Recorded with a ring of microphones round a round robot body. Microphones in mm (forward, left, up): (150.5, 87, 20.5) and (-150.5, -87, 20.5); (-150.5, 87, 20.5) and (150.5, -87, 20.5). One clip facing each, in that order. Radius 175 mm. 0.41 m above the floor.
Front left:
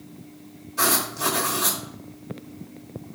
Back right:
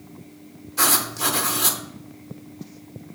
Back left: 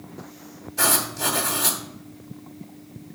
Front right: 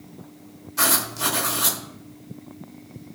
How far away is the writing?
About 1.1 m.